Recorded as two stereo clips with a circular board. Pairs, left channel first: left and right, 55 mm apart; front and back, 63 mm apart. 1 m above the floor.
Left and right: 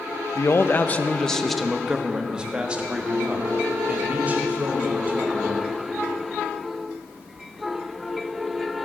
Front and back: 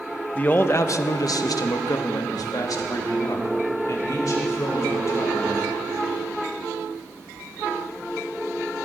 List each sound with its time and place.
0.3 s a man speaking: 65° left, 0.6 m; by 5.6 s 35° right, 3 m